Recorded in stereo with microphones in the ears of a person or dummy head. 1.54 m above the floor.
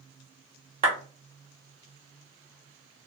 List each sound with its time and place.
0.8 s a clap: 45° right (ahead or behind), 0.9 m